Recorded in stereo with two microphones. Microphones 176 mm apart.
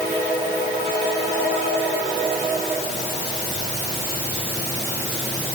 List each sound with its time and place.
Only background noise.